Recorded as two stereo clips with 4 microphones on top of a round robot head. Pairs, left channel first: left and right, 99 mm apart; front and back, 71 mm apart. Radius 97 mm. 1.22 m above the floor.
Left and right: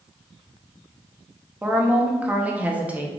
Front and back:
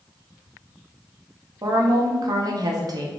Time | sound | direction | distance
1.6 | a woman speaking | 165° right | 0.9 m